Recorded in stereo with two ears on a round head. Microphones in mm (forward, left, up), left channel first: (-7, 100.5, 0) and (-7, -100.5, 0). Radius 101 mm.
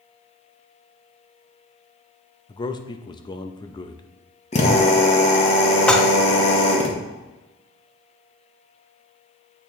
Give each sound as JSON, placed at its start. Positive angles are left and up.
{"t": 2.5, "sound": "a man speaking", "side_deg": 20, "distance_m": 0.6}
{"t": 4.5, "sound": "a drill", "side_deg": 30, "distance_m": 1.1}
{"t": 5.9, "sound": "dishes clattering", "side_deg": 5, "distance_m": 0.5}